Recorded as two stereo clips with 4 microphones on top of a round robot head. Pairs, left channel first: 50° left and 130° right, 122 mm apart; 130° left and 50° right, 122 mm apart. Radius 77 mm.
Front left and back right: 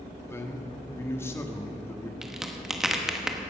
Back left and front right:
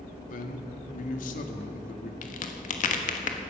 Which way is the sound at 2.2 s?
140° left.